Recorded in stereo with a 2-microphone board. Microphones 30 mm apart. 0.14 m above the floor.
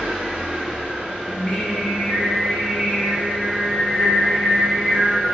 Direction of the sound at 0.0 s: 70° right (ahead or behind).